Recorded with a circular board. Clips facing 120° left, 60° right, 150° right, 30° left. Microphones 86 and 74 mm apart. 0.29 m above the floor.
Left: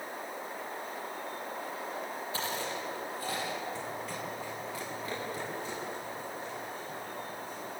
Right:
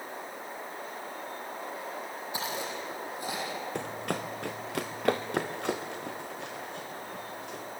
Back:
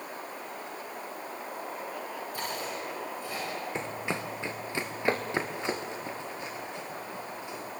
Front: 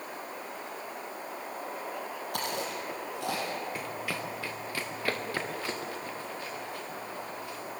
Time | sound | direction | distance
2.3 | chewing | 15° left | 6 m
3.8 | running footsteps | 85° right | 1.1 m